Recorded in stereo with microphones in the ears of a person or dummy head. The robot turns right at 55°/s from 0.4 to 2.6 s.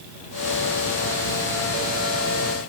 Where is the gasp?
I don't hear a gasp.